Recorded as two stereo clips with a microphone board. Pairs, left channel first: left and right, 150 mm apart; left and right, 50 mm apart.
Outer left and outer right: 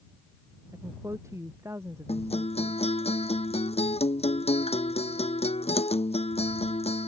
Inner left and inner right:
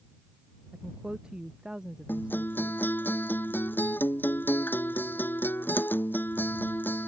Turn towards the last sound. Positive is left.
turn(degrees=40)  # may be behind; listen again after turning